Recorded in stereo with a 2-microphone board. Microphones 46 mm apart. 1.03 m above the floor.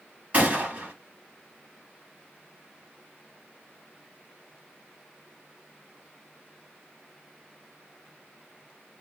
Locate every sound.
0.3 s a gunshot: 30° right (ahead or behind), 1.3 m